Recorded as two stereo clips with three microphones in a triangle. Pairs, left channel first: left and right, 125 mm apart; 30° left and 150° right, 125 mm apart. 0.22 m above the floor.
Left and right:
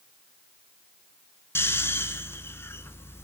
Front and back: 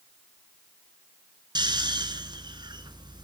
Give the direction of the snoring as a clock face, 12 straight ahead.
7 o'clock.